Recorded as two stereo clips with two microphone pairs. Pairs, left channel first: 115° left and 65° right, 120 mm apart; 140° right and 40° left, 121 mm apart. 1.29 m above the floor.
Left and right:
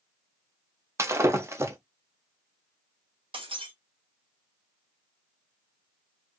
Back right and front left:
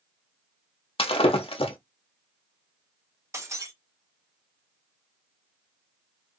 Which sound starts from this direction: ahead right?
Breaking glass, at 3.3 s.